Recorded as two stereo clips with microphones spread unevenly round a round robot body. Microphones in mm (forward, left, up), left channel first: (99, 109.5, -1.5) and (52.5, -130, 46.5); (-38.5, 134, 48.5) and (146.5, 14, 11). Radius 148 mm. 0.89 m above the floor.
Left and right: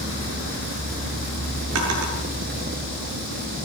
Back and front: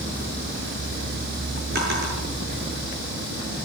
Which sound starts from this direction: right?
A drawer, at 1.8 s.